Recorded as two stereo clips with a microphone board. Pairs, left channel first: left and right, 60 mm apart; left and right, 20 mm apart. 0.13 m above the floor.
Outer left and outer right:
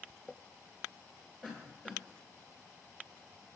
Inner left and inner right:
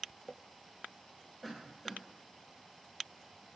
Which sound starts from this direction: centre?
A cough, at 1.4 s.